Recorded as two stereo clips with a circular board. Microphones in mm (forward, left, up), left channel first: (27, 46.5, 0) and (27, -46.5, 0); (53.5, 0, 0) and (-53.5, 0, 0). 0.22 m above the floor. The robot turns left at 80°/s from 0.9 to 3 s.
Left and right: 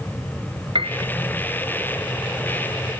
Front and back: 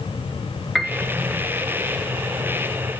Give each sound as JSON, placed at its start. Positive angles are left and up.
{"t": 0.8, "sound": "a piano", "azimuth_deg": -90, "distance_m": 0.9}